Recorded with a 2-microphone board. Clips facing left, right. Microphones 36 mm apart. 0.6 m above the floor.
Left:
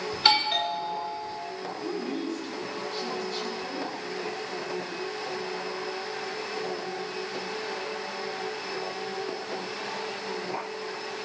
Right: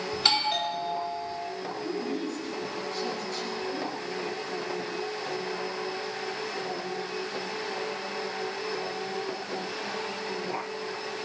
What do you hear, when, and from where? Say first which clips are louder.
0.1 s a doorbell: left 3 dB; 10° left (ahead or behind), 2 m
1.8 s a woman speaking: even; 15° left (ahead or behind), 6.5 m